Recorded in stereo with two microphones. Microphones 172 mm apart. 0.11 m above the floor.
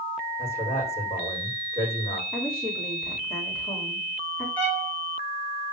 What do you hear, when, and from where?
0.4 s a man speaking: 15° left (ahead or behind), 6.5 m
2.3 s a woman speaking: 15° left (ahead or behind), 6 m
4.6 s a violin: 10° left (ahead or behind), 2.5 m